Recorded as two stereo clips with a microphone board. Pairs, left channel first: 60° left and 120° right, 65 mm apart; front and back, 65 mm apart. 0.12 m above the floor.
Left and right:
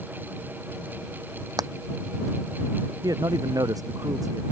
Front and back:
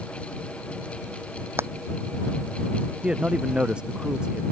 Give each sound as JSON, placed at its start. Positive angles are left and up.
{"t": 1.6, "sound": "hammering", "azimuth_deg": -130}
{"t": 3.0, "sound": "a man speaking", "azimuth_deg": -105}